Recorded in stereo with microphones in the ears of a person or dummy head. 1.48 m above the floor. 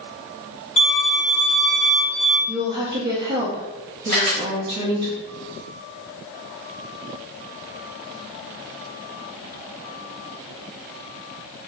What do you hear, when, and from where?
0.8 s a violin: 35° left (ahead or behind), 1.0 m
2.5 s a woman speaking: 50° right (ahead or behind), 0.7 m
4.1 s a camera shutter: 45° right (ahead or behind), 0.8 m